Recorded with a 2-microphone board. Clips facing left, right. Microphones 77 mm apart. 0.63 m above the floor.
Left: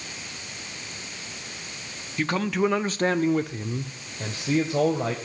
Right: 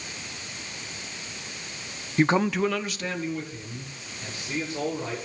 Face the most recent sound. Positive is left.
turn(degrees=80)